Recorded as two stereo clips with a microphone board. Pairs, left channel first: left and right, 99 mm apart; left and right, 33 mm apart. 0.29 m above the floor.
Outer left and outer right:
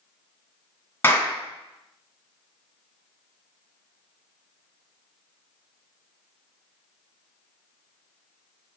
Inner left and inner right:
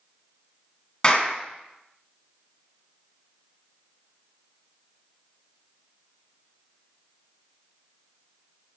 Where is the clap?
20° left (ahead or behind), 2.5 m.